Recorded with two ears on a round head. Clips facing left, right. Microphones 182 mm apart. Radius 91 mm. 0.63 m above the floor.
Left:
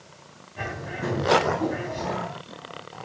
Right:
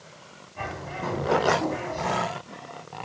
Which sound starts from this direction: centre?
A bird, at 0.6 s.